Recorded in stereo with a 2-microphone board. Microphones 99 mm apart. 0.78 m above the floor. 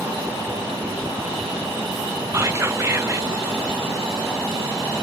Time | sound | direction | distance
2.3 | whispering | 25° right (ahead or behind) | 0.5 m